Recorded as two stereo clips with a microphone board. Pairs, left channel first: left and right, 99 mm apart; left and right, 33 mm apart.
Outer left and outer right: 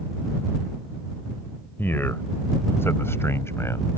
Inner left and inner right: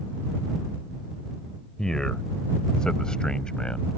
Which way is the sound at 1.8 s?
20° left (ahead or behind).